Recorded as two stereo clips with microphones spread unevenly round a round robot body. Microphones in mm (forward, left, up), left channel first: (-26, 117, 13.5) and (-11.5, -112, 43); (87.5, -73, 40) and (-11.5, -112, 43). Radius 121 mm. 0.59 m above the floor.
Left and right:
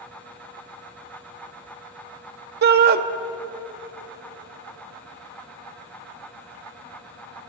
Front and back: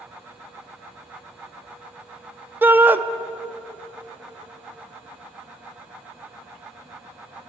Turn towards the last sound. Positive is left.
turn(degrees=-95)